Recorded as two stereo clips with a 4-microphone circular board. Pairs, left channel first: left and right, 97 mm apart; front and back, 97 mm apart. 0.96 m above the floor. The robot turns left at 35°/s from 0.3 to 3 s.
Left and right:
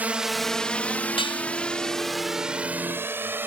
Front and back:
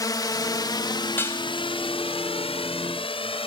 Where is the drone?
25° right; by 3.5 s 20° right.